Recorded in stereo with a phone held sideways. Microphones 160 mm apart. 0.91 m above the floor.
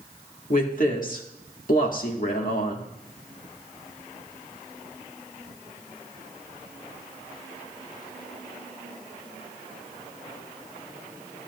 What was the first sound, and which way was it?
A woman speaking, 60° left (ahead or behind).